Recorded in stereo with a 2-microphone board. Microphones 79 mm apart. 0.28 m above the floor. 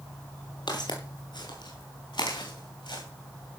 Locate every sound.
0.7 s footsteps: 70° left (ahead or behind), 5.5 m; by 3.0 s 80° left, 5 m